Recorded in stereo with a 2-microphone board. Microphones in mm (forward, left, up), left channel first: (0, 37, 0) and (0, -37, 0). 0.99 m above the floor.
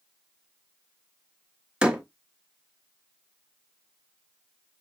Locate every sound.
1.8 s a door slam: 15° right (ahead or behind), 0.9 m